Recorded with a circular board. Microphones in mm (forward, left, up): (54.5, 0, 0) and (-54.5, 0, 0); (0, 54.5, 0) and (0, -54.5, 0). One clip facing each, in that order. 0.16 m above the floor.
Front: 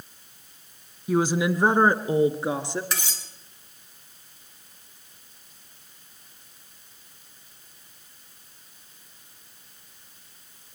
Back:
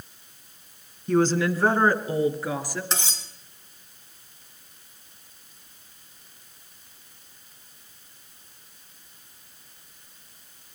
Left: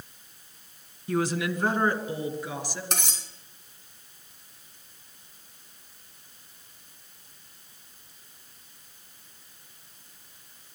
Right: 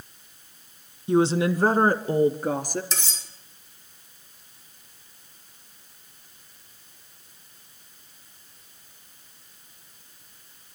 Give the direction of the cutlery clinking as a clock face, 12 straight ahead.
8 o'clock.